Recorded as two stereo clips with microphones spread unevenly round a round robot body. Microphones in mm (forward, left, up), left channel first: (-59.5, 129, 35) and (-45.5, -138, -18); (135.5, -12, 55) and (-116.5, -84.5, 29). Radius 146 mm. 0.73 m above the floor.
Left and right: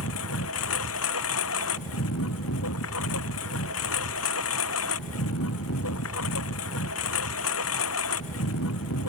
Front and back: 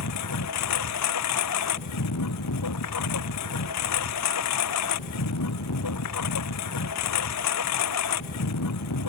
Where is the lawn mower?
50° left.